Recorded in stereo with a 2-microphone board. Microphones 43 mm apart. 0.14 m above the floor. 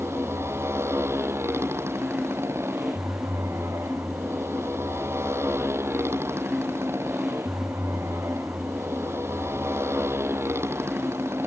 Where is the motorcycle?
90° right.